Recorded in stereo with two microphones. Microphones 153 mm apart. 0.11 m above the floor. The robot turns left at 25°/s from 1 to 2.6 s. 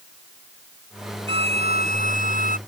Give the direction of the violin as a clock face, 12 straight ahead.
1 o'clock.